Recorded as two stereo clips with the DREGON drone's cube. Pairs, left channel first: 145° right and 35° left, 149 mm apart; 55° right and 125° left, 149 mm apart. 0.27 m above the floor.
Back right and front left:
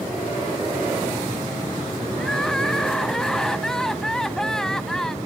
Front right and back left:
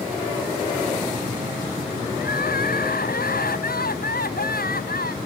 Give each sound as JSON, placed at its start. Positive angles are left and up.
{"t": 2.2, "sound": "crying", "azimuth_deg": -60}